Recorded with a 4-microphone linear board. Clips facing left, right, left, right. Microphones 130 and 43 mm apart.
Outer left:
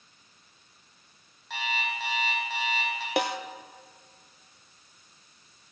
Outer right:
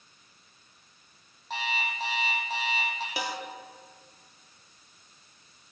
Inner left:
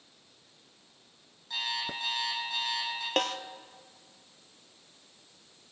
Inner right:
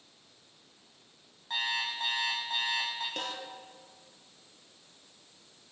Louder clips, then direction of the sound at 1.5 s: Even, inner right 2 dB; 40° right (ahead or behind).